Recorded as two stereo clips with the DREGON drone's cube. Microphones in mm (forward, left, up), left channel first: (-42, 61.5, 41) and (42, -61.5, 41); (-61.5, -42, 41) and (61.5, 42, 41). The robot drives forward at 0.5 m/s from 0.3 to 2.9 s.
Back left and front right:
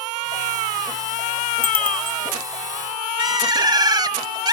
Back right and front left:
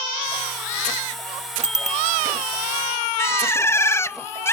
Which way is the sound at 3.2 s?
90° right.